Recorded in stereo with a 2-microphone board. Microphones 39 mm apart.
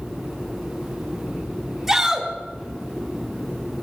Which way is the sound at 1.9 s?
5° right (ahead or behind).